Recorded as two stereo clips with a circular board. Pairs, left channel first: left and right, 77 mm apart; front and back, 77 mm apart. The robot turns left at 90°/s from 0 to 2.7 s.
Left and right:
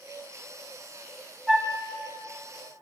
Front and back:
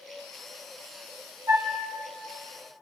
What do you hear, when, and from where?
1.5 s a flute: 165° right, 0.6 m; by 1.8 s 170° left, 0.6 m